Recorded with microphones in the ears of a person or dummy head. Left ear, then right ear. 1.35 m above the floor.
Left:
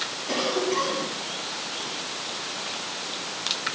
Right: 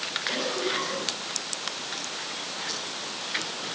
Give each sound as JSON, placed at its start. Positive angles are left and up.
{"t": 0.3, "sound": "a cough", "side_deg": 65, "distance_m": 9.0}